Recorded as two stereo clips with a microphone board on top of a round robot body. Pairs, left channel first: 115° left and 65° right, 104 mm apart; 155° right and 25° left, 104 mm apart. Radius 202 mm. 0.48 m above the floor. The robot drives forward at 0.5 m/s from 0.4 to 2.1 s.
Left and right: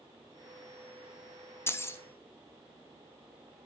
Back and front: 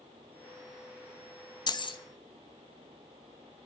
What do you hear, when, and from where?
1.7 s keys jangling: 175° left, 0.5 m